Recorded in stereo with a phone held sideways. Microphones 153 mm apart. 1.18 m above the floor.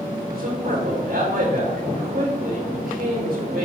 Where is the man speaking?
85° right, 4.5 m.